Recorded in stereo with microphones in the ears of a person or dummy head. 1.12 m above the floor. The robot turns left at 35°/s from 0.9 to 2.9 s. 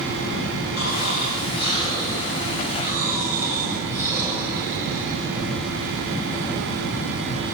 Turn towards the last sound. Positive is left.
turn(degrees=-10)